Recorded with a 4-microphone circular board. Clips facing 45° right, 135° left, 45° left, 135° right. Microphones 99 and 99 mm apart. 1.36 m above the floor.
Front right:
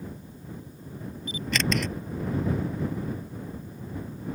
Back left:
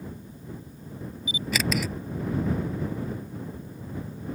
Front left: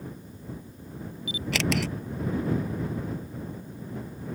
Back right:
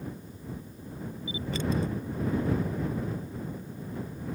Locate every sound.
1.3 s a camera shutter: 50° left